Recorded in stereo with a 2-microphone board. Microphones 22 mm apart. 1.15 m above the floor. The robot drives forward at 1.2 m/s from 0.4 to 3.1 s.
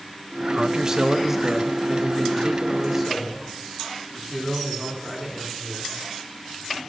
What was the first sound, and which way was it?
A man speaking, 35° right (ahead or behind).